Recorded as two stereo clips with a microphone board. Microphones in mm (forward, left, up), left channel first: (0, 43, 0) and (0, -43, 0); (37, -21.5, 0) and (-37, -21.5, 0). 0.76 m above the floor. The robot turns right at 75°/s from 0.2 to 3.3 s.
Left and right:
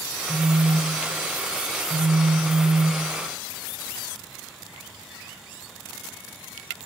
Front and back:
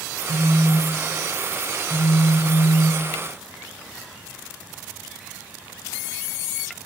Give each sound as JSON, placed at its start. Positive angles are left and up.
{"t": 0.3, "sound": "a phone buzzing", "azimuth_deg": -175, "distance_m": 0.5}